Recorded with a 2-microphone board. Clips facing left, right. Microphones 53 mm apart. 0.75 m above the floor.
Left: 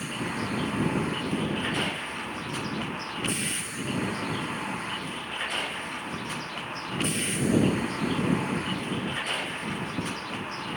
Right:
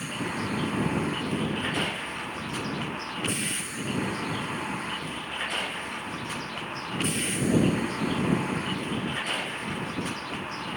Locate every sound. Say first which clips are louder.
0.0 s a vehicle: even; centre (ahead or behind)